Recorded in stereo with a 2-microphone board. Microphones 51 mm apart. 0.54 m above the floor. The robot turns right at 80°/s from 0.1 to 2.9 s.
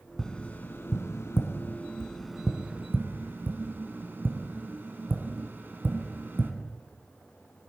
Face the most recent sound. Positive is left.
turn(degrees=-40)  # may be behind; listen again after turning